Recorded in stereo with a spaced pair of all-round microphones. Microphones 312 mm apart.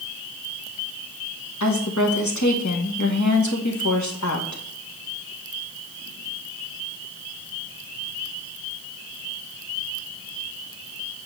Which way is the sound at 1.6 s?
70° left (ahead or behind).